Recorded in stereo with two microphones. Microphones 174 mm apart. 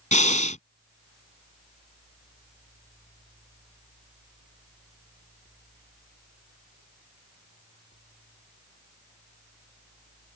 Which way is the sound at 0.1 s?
45° left (ahead or behind).